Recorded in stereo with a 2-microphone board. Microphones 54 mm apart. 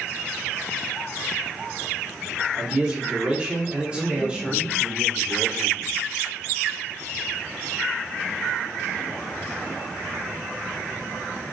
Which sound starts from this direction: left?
A man speaking, at 3.9 s.